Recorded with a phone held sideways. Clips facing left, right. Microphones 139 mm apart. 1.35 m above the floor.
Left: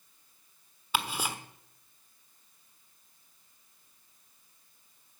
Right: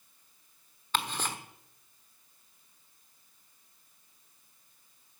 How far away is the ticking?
About 1.2 m.